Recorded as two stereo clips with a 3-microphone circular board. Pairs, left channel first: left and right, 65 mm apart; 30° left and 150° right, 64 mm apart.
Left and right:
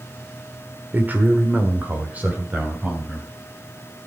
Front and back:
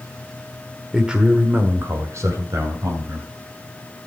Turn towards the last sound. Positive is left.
turn(degrees=-160)